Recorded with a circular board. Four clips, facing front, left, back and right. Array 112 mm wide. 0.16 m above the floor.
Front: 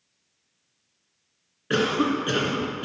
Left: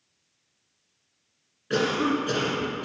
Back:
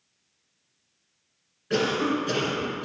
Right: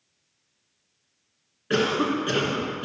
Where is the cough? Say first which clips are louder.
Right 1 dB, front 2 dB; 25° right, 2 m.